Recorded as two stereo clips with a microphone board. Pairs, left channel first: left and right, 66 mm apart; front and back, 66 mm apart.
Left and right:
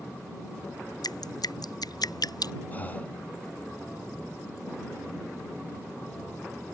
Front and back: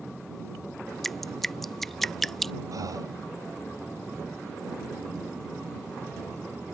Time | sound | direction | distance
1.0 | dripping | 85° left | ?
2.7 | breathing | 155° left | ?